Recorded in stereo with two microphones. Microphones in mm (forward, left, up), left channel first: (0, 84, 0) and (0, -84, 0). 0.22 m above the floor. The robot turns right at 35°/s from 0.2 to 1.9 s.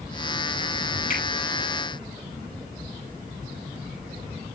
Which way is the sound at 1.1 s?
55° left (ahead or behind).